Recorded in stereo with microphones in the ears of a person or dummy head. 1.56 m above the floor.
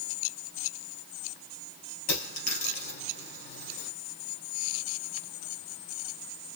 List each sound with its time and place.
2.1 s a dropped coin: 55° left (ahead or behind), 3 m